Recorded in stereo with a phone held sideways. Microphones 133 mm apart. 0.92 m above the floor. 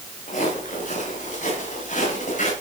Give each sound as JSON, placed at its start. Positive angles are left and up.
{"t": 0.3, "sound": "footsteps", "side_deg": 70, "distance_m": 9.0}